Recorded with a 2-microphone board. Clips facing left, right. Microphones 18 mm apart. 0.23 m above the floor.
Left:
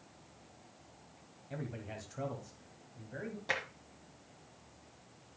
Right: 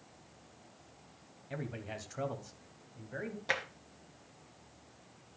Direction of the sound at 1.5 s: 20° right (ahead or behind).